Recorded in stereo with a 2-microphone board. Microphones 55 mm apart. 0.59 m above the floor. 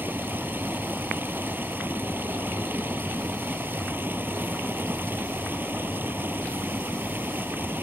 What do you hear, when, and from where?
0.0 s running water: 40° right (ahead or behind)